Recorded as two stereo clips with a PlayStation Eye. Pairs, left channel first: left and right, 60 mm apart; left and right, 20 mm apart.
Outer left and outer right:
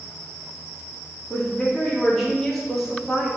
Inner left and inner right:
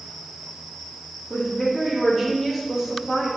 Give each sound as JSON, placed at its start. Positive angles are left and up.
{"t": 1.3, "sound": "a woman speaking", "side_deg": 15, "distance_m": 3.0}